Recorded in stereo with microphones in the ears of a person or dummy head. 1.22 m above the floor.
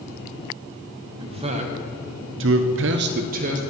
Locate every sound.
1.2 s a man speaking: 25° right (ahead or behind), 1.1 m; by 3.6 s 40° right (ahead or behind), 0.8 m